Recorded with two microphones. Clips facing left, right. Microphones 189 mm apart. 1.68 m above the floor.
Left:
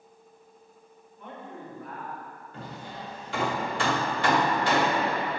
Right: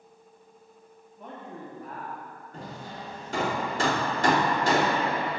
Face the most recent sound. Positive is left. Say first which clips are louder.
# even
turn(degrees=-45)  # may be behind; listen again after turning